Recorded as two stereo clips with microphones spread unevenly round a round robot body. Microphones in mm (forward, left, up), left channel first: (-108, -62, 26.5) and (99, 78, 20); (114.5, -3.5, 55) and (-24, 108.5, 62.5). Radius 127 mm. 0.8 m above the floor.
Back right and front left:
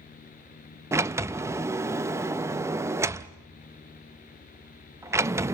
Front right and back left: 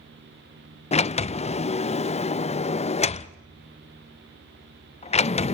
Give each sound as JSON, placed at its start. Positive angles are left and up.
{"t": 0.9, "sound": "a sliding door", "azimuth_deg": -35, "distance_m": 0.5}